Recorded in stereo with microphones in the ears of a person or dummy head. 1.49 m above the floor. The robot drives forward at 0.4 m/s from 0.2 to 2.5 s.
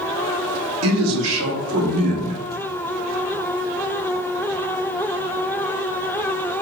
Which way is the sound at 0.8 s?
80° right.